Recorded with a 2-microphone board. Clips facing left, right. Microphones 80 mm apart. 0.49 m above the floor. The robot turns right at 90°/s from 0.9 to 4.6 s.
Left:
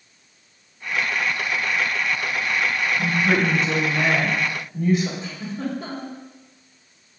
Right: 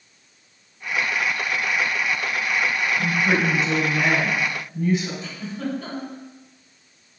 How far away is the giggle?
About 1.6 m.